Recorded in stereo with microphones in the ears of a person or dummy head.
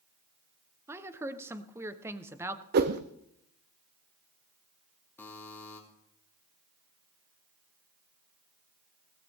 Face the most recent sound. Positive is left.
turn(degrees=20)  # may be behind; listen again after turning